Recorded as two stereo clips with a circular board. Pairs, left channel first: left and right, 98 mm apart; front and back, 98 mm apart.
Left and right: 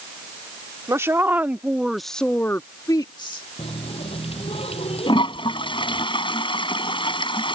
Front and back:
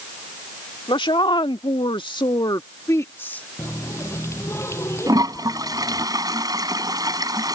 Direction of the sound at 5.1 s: 130° left.